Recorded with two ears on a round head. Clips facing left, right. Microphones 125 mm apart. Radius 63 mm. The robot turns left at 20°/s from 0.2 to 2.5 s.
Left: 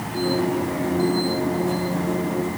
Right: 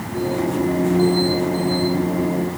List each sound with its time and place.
Only background noise.